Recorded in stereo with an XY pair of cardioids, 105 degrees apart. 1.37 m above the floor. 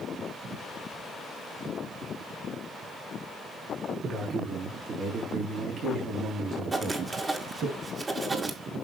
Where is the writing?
30° right, 1.9 m.